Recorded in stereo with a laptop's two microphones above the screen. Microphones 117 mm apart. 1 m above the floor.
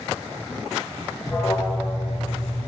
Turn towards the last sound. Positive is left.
turn(degrees=25)  # may be behind; listen again after turning